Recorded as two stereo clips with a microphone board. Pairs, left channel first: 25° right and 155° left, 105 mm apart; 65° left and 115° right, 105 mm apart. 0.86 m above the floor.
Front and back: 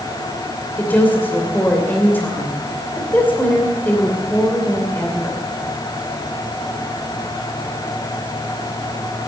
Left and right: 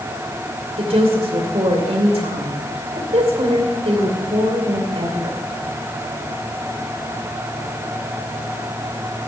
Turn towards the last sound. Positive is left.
turn(degrees=-95)